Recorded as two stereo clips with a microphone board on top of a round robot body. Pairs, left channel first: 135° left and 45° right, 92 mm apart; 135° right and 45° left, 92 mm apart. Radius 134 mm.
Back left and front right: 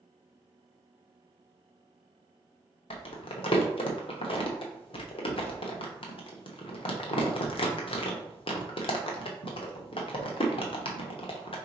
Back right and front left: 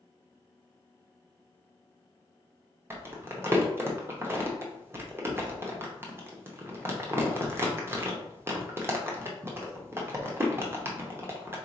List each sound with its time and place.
2.9 s crumpling: 110° left, 0.8 m